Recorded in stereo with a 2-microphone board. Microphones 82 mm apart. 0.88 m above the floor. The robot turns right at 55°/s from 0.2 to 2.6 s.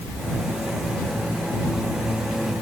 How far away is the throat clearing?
No throat clearing in this recording.